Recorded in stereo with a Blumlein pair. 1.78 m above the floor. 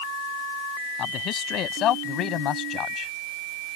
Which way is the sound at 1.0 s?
30° left.